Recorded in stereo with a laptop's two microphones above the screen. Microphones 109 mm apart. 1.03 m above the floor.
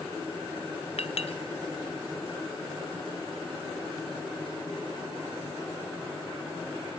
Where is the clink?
75° left (ahead or behind), 0.9 m.